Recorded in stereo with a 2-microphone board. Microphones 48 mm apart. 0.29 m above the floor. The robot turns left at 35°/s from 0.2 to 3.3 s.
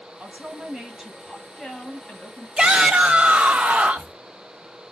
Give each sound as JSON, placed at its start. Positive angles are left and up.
{"t": 0.2, "sound": "a woman speaking", "azimuth_deg": -140, "distance_m": 2.0}
{"t": 2.6, "sound": "a shout", "side_deg": -25, "distance_m": 1.7}